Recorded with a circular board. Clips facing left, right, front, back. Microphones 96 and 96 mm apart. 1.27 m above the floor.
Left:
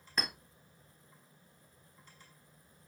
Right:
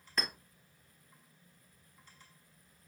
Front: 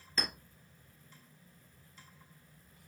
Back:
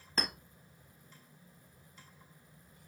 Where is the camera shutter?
No camera shutter in this recording.